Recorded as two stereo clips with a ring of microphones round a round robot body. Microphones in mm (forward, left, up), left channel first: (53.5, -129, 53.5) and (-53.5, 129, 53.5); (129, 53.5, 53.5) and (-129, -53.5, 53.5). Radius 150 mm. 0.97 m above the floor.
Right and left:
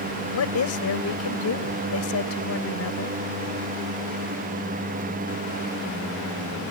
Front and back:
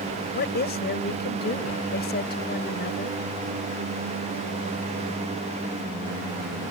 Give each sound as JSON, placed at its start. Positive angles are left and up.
{"t": 0.3, "sound": "a woman speaking", "azimuth_deg": -35}